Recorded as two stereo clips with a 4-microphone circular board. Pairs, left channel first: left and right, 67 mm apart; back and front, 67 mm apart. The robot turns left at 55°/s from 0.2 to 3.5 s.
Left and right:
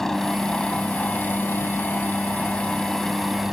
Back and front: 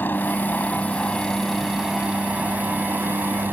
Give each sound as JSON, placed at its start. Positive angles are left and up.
{"t": 0.0, "sound": "a helicopter", "azimuth_deg": 170}